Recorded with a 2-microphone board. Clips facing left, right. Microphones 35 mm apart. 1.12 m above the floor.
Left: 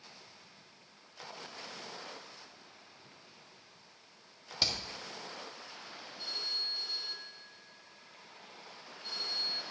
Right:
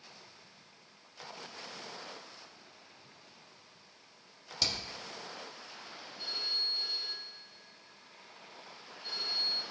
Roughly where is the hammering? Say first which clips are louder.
Left 1 dB; centre.